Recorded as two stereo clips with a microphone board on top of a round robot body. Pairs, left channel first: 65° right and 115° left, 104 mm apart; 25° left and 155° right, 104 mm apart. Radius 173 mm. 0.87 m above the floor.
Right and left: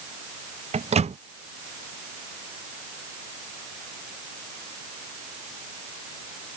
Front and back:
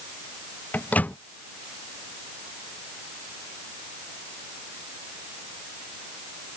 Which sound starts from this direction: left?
A microwave, at 0.7 s.